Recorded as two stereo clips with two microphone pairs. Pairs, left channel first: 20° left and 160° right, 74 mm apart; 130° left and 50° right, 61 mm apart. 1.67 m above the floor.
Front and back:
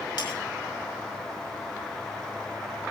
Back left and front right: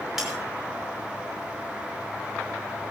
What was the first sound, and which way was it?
Breaking glass, 30° left.